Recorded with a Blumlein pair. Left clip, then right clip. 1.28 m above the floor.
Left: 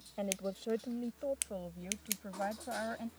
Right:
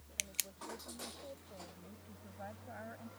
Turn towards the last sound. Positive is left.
turn(degrees=60)